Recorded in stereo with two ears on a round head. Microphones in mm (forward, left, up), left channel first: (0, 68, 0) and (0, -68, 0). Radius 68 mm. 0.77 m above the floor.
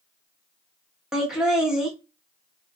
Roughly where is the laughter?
Centre.